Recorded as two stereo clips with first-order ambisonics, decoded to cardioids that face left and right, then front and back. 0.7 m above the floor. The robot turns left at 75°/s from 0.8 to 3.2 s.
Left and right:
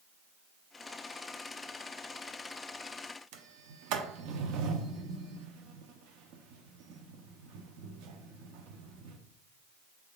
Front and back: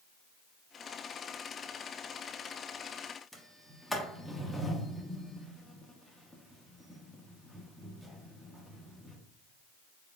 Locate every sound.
3.3 s a sliding door: 90° right, 0.6 m